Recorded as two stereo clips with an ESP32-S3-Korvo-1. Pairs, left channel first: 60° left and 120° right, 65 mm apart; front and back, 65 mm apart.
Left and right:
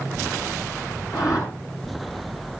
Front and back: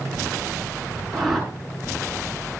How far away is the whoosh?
About 7.5 m.